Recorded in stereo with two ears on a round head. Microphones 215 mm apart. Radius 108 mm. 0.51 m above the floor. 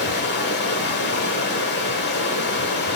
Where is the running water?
45° left (ahead or behind), 1.4 m.